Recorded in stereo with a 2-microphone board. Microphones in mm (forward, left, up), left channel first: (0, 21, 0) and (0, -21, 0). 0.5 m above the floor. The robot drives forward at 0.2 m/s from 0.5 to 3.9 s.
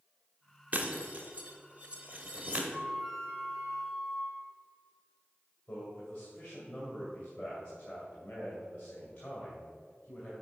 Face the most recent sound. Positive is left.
turn(degrees=50)  # may be behind; listen again after turning